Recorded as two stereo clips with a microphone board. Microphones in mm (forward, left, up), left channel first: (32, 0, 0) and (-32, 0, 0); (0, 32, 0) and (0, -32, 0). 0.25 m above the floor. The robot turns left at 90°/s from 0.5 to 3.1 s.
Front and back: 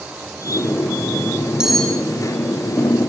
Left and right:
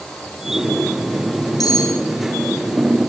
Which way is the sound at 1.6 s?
100° left.